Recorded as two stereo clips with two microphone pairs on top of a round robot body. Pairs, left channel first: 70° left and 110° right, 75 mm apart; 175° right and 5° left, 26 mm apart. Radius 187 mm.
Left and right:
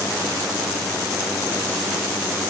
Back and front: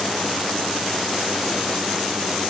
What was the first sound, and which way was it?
Only background noise.